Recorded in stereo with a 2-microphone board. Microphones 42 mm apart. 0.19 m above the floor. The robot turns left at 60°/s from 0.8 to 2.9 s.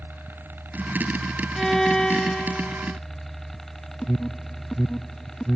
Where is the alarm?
15° left (ahead or behind).